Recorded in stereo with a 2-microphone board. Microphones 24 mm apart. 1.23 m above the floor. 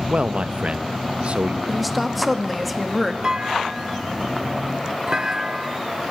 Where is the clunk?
30° right (ahead or behind), 1.1 m.